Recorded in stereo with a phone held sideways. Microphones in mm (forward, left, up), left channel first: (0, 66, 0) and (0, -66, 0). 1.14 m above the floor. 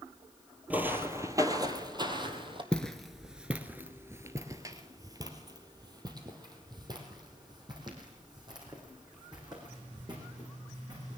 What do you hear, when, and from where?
0.7 s footsteps: 10° right (ahead or behind), 1.2 m; by 2.6 s 40° right (ahead or behind), 1.9 m
2.7 s footsteps: 5° left (ahead or behind), 1.1 m; by 11.2 s 35° right (ahead or behind), 5.5 m